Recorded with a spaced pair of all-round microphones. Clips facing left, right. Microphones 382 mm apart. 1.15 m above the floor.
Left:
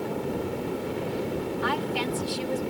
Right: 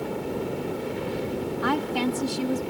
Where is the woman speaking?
65° right (ahead or behind).